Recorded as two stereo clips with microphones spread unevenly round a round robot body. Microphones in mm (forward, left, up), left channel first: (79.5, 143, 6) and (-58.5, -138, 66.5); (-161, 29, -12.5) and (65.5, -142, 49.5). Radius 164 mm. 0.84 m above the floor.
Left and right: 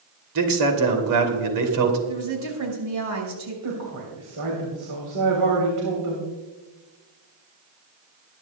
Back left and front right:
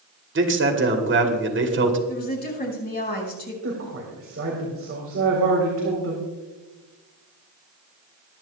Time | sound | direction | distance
0.3 | a man speaking | 90° right | 2.5 m
2.1 | a woman speaking | 160° right | 5.5 m
3.6 | a woman speaking | 85° right | 3.5 m